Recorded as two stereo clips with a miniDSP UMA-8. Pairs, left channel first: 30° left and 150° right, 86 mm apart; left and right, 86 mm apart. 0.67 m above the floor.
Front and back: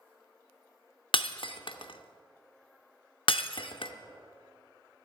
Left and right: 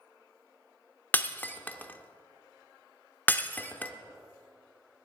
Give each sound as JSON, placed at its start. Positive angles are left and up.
{"t": 1.1, "sound": "breaking glass", "azimuth_deg": 20, "distance_m": 0.6}